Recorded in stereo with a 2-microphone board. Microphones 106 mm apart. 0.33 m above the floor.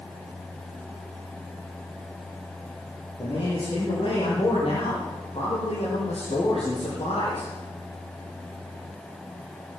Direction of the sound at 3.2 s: 50° left (ahead or behind).